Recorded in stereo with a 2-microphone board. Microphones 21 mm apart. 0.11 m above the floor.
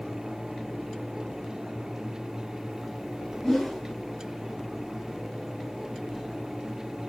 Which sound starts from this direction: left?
A whoosh, at 3.4 s.